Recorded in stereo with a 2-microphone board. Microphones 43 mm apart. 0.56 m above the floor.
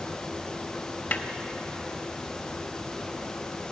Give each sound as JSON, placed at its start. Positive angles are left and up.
{"t": 1.1, "sound": "a snare drum", "side_deg": 45, "distance_m": 0.8}